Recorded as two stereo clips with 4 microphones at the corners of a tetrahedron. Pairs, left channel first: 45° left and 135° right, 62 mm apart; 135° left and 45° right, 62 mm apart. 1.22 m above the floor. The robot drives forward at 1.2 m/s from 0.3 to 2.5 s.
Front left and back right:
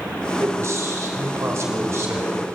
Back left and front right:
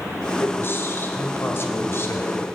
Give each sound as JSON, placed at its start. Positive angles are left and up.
{"t": 0.4, "sound": "a man speaking", "azimuth_deg": -175, "distance_m": 3.5}